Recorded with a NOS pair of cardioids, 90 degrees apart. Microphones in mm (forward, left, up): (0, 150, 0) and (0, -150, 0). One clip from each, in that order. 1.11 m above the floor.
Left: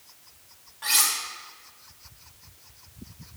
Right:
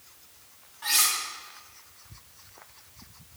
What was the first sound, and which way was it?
Cutlery clinking, 20° left.